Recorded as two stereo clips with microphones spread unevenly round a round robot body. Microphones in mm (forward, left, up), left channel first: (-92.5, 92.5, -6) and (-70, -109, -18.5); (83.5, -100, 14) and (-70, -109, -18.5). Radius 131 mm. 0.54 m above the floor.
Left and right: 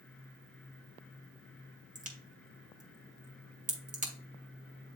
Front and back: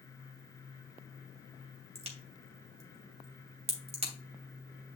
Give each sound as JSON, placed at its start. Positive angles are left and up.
{"t": 1.9, "sound": "a crack", "azimuth_deg": -130, "distance_m": 3.0}